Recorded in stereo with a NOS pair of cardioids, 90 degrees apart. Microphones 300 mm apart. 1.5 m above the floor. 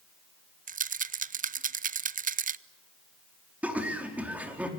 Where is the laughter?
5° right, 4 m.